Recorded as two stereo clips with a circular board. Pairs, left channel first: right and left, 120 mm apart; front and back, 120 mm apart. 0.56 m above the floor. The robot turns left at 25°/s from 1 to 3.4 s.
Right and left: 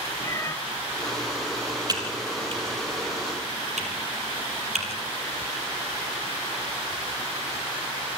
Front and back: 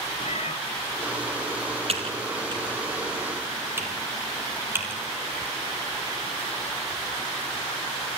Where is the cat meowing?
25° right, 1.2 m.